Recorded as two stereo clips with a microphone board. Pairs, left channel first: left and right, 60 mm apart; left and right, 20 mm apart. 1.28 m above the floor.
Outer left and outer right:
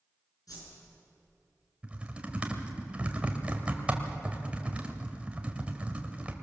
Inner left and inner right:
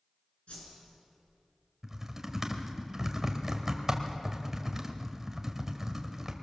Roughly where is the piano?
I don't hear a piano.